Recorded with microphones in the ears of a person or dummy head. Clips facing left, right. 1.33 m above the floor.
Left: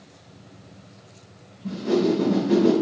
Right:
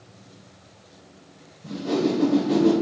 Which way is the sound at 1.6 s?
30° right (ahead or behind).